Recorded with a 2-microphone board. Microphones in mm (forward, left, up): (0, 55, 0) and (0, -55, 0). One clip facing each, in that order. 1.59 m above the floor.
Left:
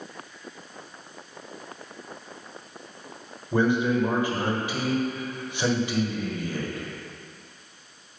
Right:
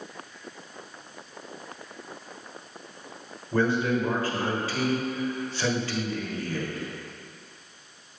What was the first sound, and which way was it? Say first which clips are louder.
A man speaking: left 2 dB; 15° left (ahead or behind).